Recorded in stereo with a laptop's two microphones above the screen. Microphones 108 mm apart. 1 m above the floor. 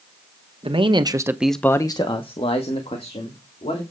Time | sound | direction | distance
0.6 | a man speaking | 60° right (ahead or behind) | 1.2 m